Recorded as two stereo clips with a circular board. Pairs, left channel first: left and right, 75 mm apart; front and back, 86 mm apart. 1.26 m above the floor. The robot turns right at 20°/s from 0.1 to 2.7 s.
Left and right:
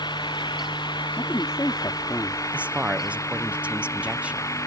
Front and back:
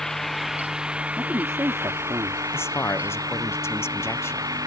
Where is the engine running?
85° left; by 4.7 s 135° left.